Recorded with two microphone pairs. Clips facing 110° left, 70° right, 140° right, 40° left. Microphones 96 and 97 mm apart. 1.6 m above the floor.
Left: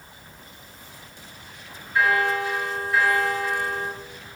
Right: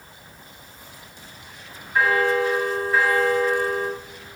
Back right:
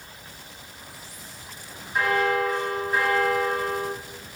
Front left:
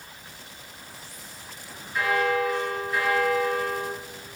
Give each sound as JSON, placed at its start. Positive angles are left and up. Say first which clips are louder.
{"t": 1.9, "sound": "a bell", "louder": "right 2 dB, back right 1 dB", "azimuth_deg": -115, "distance_m": 1.8}